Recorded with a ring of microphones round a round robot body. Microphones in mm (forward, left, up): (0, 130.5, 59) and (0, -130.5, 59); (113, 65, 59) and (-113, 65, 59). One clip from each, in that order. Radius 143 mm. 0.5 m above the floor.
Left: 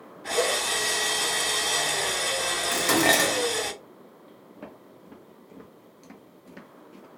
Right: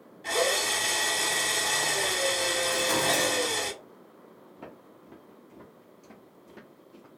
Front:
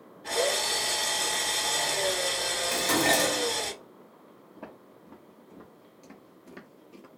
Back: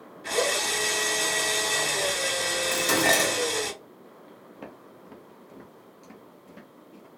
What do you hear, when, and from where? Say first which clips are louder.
0.2 s a drill: left 1 dB, back 1 dB; 150° right, 1.9 m
2.7 s dishes clattering: left 7 dB, back 2 dB; 110° left, 0.5 m
4.5 s footsteps: left 2 dB, back 1 dB; straight behind, 0.9 m; by 7.1 s 30° left, 0.7 m